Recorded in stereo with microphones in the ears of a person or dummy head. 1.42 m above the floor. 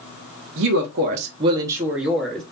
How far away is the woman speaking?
About 0.7 m.